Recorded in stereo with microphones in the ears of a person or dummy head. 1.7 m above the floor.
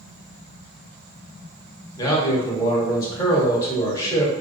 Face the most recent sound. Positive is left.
turn(degrees=20)  # may be behind; listen again after turning